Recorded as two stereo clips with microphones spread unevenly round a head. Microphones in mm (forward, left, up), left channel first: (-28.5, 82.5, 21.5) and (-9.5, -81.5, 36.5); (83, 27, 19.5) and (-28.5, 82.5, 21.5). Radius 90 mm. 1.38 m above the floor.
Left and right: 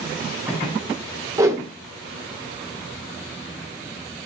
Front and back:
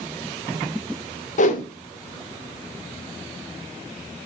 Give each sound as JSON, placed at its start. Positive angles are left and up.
{"t": 1.4, "sound": "a whoosh", "azimuth_deg": -10, "distance_m": 0.7}